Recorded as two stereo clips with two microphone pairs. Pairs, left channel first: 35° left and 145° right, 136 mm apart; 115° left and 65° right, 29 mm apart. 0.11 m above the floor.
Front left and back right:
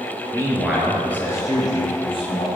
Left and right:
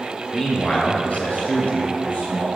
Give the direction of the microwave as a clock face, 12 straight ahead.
No microwave in this recording.